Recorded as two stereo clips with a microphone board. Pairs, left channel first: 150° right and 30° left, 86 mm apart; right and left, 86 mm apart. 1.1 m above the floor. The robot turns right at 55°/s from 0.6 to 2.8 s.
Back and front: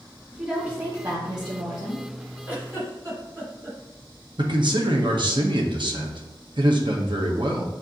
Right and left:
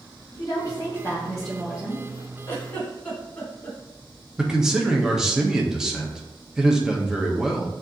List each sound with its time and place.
0.3 s a woman speaking: 50° right, 1.5 m; by 2.0 s 30° left, 1.5 m
2.5 s a giggle: 35° right, 1.5 m; by 3.8 s 15° right, 1.5 m
4.4 s a man speaking: 5° left, 0.9 m